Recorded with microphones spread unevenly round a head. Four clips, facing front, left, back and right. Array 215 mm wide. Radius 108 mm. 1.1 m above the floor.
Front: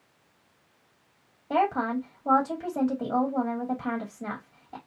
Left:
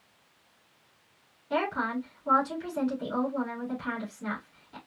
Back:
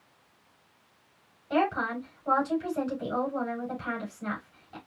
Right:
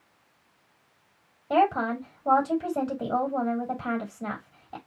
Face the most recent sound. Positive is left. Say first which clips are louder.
# right 6 dB, front 2 dB
turn(degrees=-50)